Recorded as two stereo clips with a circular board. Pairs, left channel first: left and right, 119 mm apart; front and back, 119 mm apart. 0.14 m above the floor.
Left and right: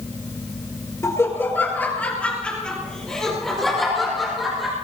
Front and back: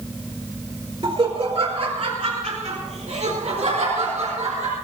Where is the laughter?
150° left, 2 m; by 4.8 s straight behind, 5 m.